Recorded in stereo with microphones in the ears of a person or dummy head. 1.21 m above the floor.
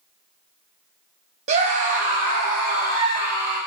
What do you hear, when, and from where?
1.5 s a scream: 35° right (ahead or behind), 0.7 m; by 3.6 s 50° right (ahead or behind), 3 m